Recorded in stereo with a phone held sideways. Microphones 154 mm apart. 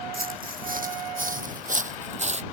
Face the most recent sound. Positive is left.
turn(degrees=-45)  # may be behind; listen again after turning